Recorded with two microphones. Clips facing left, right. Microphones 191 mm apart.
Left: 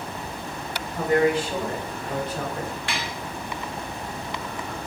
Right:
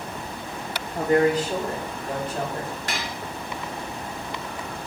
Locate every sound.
0.9 s a woman speaking: 35° right (ahead or behind), 2.0 m; by 2.8 s 50° right (ahead or behind), 3.5 m
2.9 s dishes clattering: 40° right (ahead or behind), 1.0 m